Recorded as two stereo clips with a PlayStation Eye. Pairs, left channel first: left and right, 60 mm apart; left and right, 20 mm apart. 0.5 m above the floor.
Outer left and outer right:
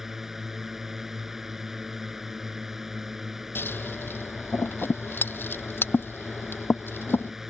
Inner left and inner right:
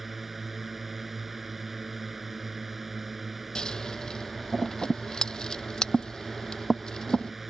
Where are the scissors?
35° left (ahead or behind).